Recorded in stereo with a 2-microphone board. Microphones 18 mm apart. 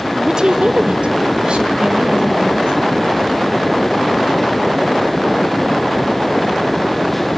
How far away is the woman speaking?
About 1.0 m.